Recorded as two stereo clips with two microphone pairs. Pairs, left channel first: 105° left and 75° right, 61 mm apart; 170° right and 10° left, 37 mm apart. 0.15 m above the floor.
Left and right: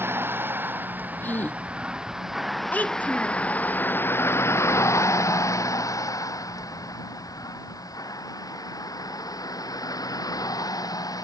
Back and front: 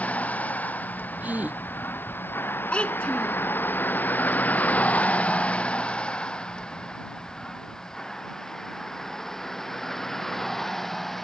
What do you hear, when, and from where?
0.0 s a vehicle: 125° right; by 11.2 s 105° left
1.2 s a gasp: 45° left
2.7 s a child speaking: 150° left